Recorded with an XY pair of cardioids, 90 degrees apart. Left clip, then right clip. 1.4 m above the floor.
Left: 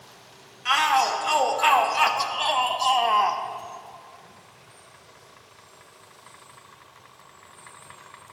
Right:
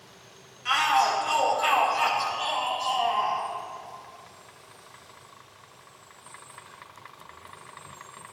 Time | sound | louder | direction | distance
0.7 | a shout | left 2 dB | 35° left | 2.5 m